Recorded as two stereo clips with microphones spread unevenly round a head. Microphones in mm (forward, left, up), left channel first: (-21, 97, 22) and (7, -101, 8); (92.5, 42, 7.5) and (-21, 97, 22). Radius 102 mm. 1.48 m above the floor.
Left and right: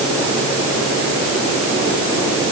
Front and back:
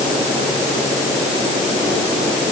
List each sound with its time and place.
Only background noise.